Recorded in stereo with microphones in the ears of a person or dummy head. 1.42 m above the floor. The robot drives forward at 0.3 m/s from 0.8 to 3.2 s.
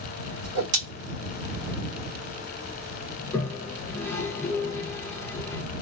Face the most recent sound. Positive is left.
turn(degrees=10)  # may be behind; listen again after turning